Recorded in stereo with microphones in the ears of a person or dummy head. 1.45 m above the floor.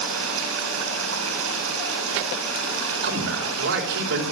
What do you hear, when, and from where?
0.0 s running water: 80° right, 6.5 m
3.0 s a man speaking: 70° right (ahead or behind), 4 m